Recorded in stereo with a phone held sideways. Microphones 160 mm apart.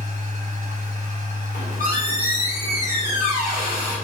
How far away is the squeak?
About 1.9 m.